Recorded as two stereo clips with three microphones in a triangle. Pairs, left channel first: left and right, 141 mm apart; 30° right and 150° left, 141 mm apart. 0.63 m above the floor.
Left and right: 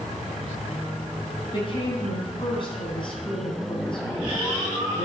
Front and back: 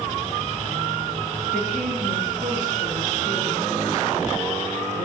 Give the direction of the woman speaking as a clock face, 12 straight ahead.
7 o'clock.